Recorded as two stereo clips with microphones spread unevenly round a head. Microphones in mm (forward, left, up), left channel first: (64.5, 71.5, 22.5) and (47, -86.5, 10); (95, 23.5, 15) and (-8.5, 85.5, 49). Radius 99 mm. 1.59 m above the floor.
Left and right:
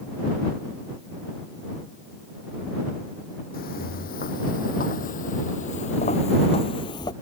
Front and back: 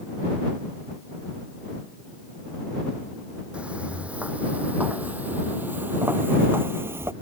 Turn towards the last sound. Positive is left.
turn(degrees=130)